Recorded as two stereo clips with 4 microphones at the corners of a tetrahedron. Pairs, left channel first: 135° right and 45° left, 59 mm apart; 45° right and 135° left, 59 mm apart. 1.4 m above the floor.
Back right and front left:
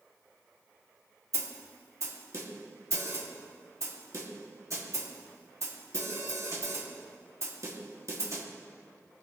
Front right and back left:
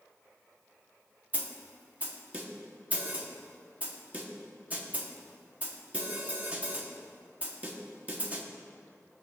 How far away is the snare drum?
About 1.7 m.